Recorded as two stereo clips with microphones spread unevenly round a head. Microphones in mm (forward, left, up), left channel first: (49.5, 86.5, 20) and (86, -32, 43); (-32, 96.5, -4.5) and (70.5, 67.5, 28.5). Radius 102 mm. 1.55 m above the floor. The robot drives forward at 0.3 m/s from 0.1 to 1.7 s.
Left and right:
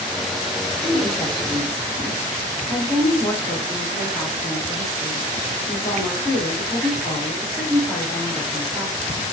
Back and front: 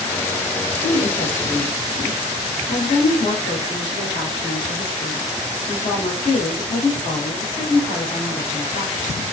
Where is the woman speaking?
175° right, 0.7 m.